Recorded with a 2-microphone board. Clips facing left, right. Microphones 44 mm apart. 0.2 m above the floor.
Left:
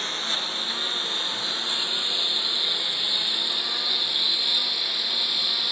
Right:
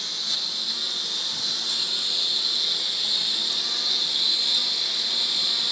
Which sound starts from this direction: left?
A lawn mower, at 0.0 s.